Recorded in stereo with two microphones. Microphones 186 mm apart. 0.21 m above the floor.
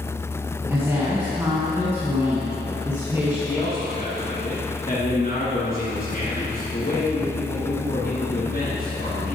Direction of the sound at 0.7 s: 15° right (ahead or behind).